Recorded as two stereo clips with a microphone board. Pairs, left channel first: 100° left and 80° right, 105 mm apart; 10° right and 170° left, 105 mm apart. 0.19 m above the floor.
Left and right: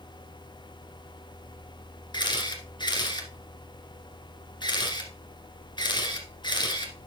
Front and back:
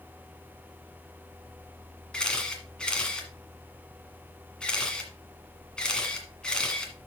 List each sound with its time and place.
2.1 s a camera shutter: 70° left, 1.8 m